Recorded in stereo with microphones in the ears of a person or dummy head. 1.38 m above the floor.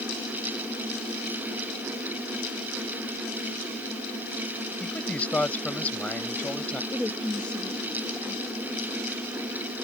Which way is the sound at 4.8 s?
5° left (ahead or behind).